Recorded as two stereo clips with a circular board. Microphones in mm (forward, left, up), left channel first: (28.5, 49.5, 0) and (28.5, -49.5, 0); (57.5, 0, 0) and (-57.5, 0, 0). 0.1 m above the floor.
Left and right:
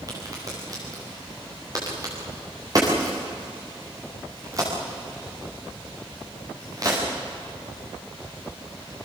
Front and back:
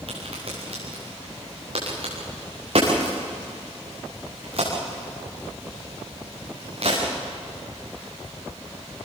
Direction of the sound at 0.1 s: 145° right.